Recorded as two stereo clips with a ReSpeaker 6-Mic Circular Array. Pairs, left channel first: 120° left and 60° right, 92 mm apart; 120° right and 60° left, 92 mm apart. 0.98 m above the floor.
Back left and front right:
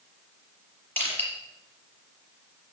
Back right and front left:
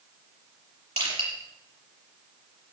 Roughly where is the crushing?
Ahead left.